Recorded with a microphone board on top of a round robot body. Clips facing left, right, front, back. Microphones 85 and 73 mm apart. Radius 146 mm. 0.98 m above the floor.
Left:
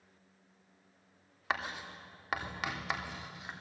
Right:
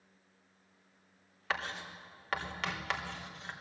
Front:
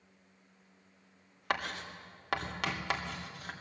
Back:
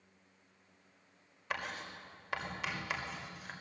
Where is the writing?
10° left, 3.5 m.